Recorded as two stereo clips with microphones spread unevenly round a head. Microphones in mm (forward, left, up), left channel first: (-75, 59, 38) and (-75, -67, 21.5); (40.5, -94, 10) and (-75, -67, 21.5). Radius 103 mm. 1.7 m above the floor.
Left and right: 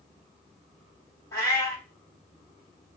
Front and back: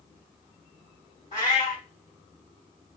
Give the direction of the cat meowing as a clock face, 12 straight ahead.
11 o'clock.